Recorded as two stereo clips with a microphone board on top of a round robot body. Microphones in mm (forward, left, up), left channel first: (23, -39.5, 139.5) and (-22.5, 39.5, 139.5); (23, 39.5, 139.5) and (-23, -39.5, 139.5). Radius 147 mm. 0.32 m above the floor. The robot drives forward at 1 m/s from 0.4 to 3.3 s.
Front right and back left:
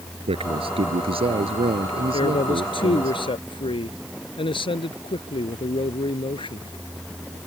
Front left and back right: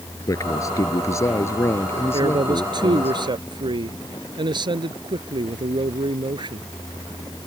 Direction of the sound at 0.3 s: 115° left.